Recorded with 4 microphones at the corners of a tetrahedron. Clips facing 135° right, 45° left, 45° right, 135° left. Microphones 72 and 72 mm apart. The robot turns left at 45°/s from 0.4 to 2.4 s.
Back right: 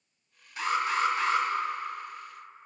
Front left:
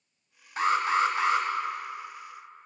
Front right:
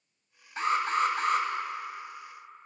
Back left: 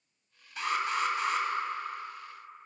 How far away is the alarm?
About 1.4 m.